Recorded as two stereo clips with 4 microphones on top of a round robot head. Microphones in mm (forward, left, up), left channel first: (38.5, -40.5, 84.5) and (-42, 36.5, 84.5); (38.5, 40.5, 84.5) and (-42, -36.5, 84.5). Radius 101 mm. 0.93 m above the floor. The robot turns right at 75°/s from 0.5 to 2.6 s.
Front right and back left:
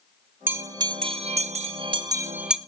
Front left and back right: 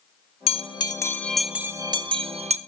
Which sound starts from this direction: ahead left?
A bell, at 0.5 s.